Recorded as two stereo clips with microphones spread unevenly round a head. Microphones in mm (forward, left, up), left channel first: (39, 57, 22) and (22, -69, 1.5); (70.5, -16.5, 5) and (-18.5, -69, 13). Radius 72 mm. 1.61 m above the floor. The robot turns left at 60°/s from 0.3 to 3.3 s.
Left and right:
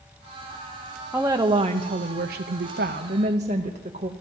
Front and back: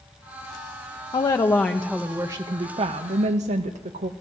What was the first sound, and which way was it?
A woman speaking, 15° right.